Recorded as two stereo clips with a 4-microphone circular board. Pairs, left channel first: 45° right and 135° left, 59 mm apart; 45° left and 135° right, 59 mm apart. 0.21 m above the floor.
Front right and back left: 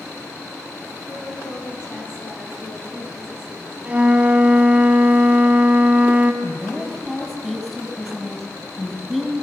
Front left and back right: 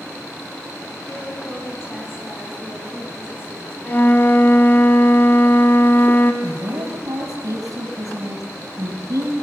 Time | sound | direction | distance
1.1 | a woman speaking | straight ahead | 7 m
3.9 | a flute | 80° left | 1.4 m
6.4 | a woman speaking | 130° right | 4.5 m